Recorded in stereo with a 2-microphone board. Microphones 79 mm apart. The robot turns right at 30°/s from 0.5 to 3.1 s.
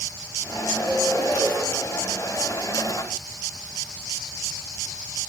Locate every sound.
0.8 s a bird: 80° right, 8.5 m; by 1.5 s 55° right (ahead or behind), 8.5 m